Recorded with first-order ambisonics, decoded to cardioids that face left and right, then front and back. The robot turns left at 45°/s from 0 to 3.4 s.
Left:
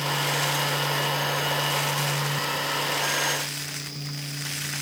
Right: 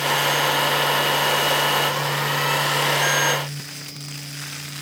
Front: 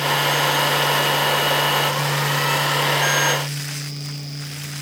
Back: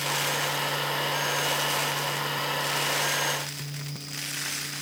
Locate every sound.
Only background noise.